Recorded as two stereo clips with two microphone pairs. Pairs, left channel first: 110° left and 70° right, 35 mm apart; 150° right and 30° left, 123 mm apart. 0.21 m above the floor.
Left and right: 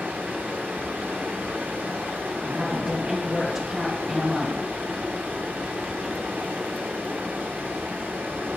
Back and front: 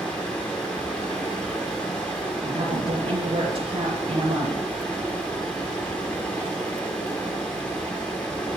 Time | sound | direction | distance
0.0 | running water | 75° right | 3.5 m
2.4 | a woman speaking | 5° left | 2.5 m